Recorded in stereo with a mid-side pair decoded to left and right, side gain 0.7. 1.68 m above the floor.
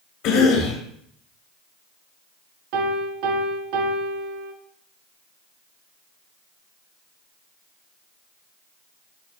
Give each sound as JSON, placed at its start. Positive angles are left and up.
{"t": 0.2, "sound": "a cough", "azimuth_deg": 55, "distance_m": 1.4}
{"t": 2.7, "sound": "a piano", "azimuth_deg": -65, "distance_m": 0.8}